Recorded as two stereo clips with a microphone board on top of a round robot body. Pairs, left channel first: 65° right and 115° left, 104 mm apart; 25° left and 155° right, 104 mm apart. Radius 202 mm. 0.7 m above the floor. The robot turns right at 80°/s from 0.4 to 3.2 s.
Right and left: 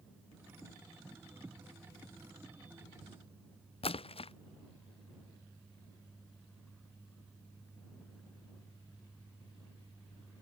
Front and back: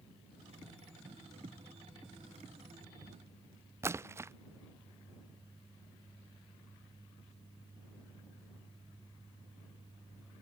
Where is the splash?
95° right.